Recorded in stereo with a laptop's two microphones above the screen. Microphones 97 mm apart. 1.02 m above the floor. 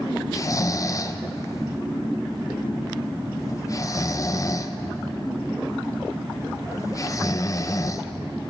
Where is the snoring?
30° left (ahead or behind), 0.6 m.